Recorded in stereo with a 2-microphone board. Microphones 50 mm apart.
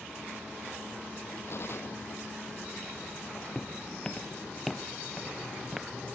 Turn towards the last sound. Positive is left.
turn(degrees=-10)  # may be behind; listen again after turning